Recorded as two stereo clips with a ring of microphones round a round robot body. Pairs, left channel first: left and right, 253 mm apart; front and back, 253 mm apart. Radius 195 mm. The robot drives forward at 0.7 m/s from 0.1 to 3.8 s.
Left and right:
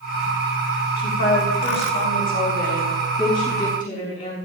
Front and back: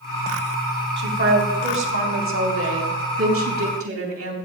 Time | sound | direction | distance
1.0 | a woman speaking | 140° left | 3 m